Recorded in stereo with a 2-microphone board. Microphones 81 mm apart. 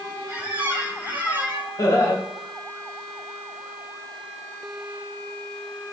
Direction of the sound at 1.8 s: 40° left (ahead or behind).